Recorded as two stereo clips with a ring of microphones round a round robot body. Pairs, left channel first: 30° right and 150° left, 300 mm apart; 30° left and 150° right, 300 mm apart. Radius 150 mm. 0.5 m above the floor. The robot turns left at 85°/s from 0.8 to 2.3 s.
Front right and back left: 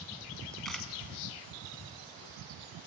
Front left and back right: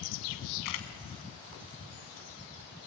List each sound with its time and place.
0.7 s a camera shutter: 60° left, 2.0 m; by 0.9 s 50° left, 2.0 m